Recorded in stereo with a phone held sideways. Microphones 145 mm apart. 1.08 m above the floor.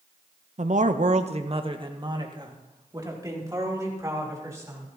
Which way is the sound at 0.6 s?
55° right (ahead or behind).